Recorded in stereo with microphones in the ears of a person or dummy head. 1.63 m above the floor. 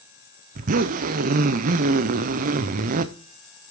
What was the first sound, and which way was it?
A zipper, 45° right (ahead or behind).